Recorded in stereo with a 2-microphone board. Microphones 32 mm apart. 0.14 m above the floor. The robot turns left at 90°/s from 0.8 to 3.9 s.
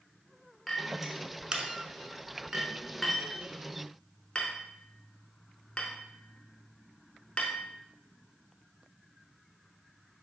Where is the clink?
Centre (ahead or behind), 0.7 m; by 7.7 s 35° left (ahead or behind), 0.7 m.